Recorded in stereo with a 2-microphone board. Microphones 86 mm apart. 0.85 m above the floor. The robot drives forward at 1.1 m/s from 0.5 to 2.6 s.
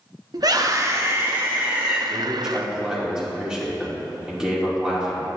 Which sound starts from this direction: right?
A scream, at 0.3 s.